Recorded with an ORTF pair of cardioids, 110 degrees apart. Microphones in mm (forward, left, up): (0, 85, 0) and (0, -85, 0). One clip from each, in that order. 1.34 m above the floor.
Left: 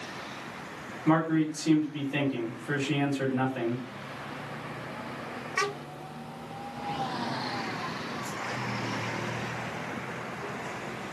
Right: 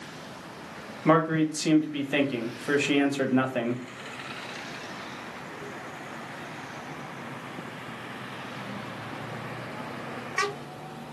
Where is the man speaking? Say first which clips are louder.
Right 3 dB; 65° right, 1.0 m.